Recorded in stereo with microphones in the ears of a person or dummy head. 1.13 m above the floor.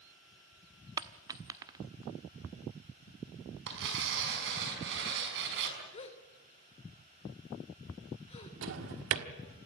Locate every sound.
1.0 s a dropped coin: 20° right (ahead or behind), 1.0 m
3.7 s tearing paper: 70° right (ahead or behind), 5.5 m
5.9 s a gasp: 30° left (ahead or behind), 2.5 m
8.6 s a drawer: 70° right (ahead or behind), 1.4 m